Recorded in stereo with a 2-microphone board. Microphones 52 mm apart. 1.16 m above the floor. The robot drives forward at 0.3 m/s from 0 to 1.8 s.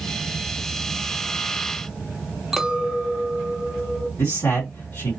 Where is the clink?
5° right (ahead or behind), 0.9 m.